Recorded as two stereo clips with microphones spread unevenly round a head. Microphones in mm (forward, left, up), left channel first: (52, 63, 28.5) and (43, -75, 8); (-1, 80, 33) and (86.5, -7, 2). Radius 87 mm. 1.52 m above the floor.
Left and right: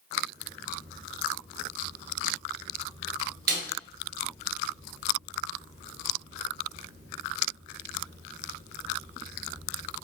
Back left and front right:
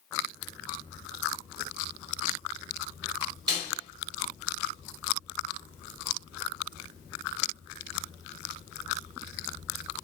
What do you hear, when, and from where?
3.5 s a snare drum: 110° right, 1.2 m